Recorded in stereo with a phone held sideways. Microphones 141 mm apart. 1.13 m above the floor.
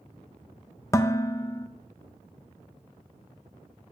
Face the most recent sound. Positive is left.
turn(degrees=20)  # may be behind; listen again after turning